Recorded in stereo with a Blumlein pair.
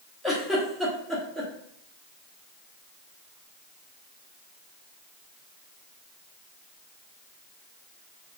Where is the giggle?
5° left, 0.9 m.